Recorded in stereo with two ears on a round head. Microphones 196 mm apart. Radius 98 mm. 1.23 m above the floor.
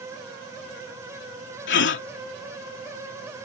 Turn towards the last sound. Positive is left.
turn(degrees=55)  # may be behind; listen again after turning